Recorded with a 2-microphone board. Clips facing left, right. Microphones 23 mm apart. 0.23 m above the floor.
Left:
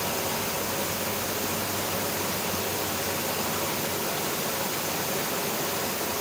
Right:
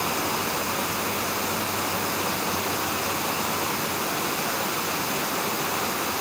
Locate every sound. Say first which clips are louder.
0.0 s running water: right 3 dB; 60° right (ahead or behind), 1.1 m